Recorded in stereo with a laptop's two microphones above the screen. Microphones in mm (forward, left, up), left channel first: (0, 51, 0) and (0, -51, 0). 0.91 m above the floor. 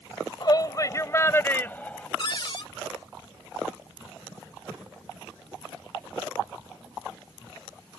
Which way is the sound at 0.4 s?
45° left (ahead or behind).